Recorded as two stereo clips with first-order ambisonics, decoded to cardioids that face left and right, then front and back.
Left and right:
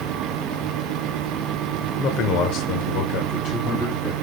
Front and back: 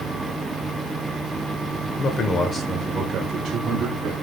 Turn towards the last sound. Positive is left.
turn(degrees=140)